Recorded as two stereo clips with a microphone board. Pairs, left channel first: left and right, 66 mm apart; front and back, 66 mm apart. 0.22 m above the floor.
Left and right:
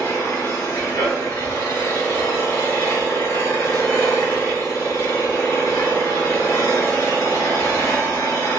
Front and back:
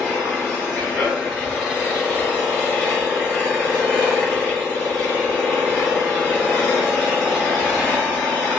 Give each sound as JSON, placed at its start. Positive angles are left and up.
{"t": 0.0, "sound": "an engine running", "azimuth_deg": 100, "distance_m": 1.7}